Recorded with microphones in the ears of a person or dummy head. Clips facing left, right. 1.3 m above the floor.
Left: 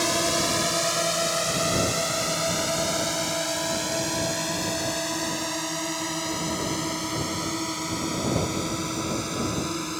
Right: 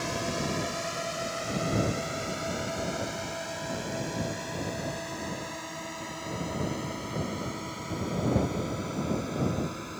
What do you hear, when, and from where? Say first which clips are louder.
0.0 s a drone: left 6 dB; 70° left (ahead or behind); by 10.0 s 60° left (ahead or behind)